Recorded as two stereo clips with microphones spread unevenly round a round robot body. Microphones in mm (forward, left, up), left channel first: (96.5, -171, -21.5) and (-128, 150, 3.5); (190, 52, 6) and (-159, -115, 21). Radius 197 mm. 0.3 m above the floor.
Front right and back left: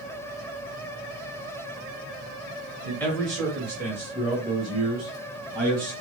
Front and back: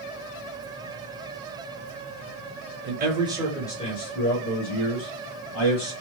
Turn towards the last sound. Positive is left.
turn(degrees=45)